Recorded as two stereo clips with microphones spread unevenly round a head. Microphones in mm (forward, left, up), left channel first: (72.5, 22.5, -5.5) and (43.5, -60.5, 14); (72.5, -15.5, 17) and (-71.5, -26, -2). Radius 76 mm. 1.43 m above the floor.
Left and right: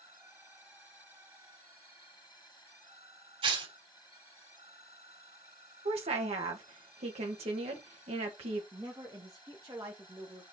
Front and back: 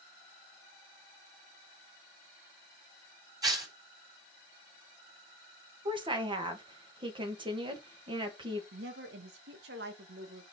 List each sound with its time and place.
3.4 s tearing paper: 110° right, 4 m
5.8 s a woman speaking: 120° right, 1.8 m
8.7 s a woman speaking: 175° right, 1.7 m